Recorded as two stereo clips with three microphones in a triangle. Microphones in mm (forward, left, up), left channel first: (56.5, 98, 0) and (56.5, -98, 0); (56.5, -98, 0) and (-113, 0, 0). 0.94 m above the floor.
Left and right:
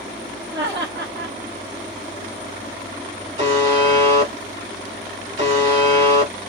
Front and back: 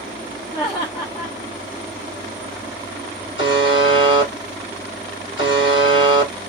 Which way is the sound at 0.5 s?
95° right.